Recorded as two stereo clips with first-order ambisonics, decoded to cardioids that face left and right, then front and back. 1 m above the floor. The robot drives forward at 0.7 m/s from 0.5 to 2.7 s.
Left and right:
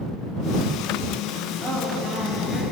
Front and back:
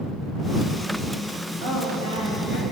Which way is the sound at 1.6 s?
Straight behind.